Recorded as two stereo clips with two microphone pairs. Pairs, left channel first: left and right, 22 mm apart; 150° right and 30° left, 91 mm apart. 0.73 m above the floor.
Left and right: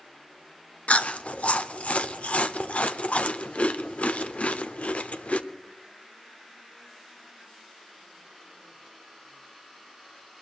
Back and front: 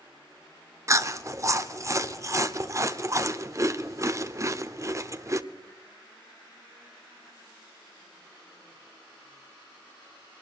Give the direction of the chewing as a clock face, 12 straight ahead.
9 o'clock.